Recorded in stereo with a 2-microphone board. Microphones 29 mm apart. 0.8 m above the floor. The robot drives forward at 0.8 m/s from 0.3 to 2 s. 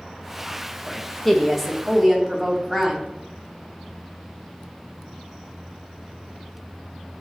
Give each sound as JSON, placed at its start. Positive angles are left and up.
{"t": 0.9, "sound": "a woman speaking", "side_deg": 0, "distance_m": 0.7}